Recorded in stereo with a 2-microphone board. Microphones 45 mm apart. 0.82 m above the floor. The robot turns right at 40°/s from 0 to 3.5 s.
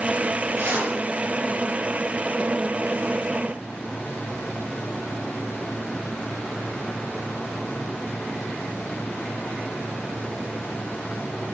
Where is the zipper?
60° right (ahead or behind), 5 m; by 0.9 s 75° right (ahead or behind), 5 m.